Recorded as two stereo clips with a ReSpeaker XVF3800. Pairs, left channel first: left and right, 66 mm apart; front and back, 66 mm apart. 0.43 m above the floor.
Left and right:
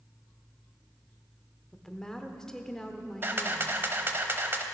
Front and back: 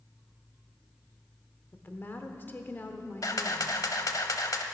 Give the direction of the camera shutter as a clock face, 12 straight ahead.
1 o'clock.